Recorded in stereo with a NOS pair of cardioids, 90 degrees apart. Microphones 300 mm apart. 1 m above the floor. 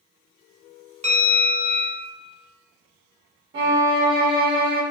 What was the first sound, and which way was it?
A bell, 20° right.